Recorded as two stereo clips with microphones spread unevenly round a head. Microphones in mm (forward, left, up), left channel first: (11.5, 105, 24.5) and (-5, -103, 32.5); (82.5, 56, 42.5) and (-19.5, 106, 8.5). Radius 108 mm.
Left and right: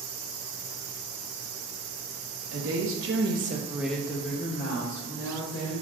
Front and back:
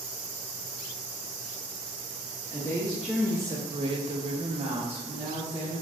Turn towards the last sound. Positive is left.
turn(degrees=115)